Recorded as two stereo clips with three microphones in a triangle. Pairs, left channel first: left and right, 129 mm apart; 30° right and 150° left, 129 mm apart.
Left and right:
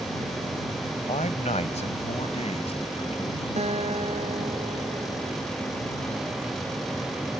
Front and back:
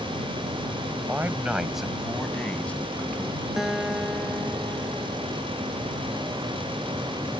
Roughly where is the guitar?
Behind right.